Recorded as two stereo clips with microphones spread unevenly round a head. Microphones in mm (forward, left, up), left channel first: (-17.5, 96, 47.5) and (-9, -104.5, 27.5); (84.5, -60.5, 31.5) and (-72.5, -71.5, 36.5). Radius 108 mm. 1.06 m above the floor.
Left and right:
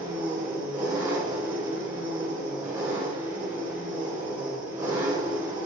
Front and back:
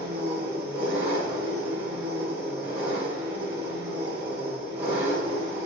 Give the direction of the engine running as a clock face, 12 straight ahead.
6 o'clock.